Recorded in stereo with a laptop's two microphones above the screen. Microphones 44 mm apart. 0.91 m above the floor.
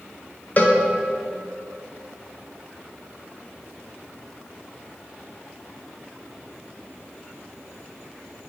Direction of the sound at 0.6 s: 35° left (ahead or behind).